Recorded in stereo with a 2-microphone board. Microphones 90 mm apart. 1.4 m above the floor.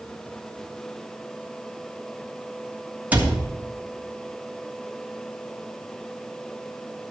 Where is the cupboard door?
15° right (ahead or behind), 1.4 m.